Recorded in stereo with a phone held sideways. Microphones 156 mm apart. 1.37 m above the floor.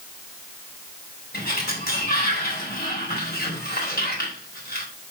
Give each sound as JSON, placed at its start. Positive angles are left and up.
{"t": 1.3, "sound": "a sliding door", "side_deg": 80, "distance_m": 3.5}